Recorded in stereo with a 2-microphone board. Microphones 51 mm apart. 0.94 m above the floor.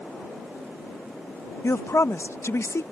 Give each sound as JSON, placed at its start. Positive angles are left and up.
{"t": 1.6, "sound": "a woman speaking", "side_deg": 60}